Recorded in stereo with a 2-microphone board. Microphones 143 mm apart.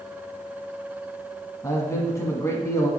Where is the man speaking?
20° left (ahead or behind), 1.2 m.